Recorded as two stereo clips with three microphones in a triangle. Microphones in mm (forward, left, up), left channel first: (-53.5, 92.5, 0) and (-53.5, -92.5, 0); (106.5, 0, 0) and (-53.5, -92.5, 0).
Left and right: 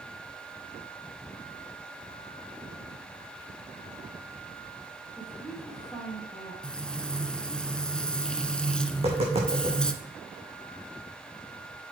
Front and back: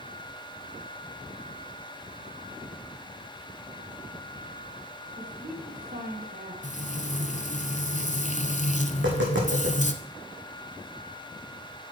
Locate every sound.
5.2 s a woman speaking: straight behind, 4 m
6.6 s frying: 5° left, 0.8 m
8.9 s tapping: 150° right, 4 m